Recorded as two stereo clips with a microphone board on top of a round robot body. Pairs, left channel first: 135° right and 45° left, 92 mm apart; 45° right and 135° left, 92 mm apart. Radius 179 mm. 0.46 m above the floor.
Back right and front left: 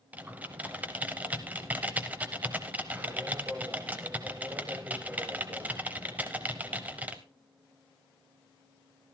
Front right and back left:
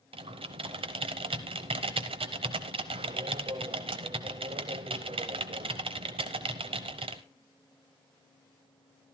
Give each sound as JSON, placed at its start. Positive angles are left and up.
{"t": 0.1, "sound": "typing on a keyboard", "azimuth_deg": 120, "distance_m": 0.6}